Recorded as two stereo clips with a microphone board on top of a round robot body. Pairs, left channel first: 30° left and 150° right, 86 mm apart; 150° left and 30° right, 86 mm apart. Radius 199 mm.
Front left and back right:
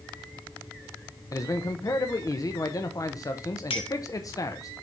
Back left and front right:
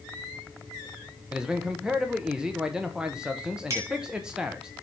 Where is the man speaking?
45° left, 1.2 m.